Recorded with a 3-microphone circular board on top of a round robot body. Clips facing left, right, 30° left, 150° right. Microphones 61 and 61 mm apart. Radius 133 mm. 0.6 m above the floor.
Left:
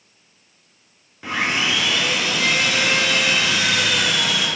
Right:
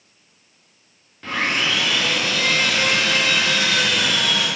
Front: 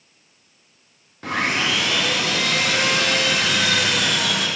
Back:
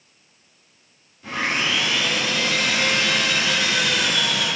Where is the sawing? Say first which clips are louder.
Even, front 2 dB; 10° left, 1.2 m.